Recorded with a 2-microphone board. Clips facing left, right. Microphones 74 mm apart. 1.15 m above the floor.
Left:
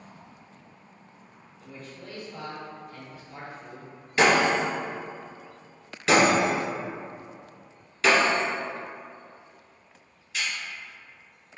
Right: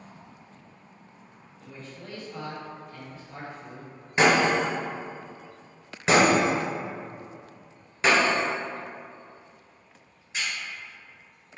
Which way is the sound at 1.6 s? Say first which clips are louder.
Even; 30° right (ahead or behind).